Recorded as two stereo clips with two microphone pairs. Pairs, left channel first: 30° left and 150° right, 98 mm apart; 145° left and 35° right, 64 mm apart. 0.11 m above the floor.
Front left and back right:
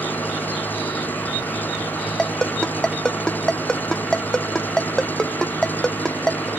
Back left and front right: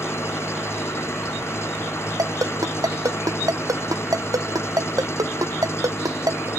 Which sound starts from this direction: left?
An engine running, at 0.0 s.